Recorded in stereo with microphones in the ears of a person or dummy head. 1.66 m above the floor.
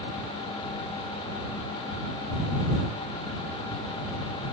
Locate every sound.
Only background noise.